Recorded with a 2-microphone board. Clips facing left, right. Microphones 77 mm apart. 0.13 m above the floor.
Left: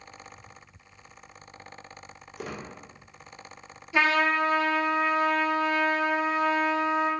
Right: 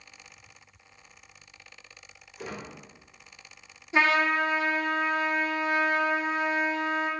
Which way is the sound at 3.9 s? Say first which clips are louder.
Even; 25° right (ahead or behind).